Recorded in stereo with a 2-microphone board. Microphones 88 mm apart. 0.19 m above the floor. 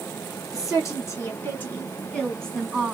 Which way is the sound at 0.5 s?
40° left (ahead or behind).